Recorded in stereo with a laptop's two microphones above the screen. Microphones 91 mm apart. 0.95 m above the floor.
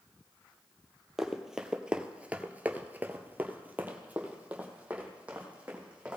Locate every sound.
1.2 s running footsteps: 5° right (ahead or behind), 1.5 m; by 6.2 s 15° right (ahead or behind), 3 m